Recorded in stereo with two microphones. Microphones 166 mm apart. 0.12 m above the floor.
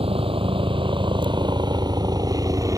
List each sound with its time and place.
0.0 s a helicopter: 35° right (ahead or behind); by 2.8 s 20° right (ahead or behind)